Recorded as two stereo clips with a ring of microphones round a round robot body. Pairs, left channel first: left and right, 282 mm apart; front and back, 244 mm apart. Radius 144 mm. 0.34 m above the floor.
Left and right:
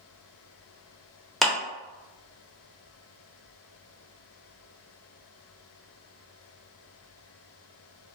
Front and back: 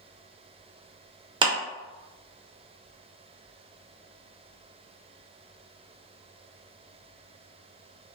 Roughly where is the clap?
Behind.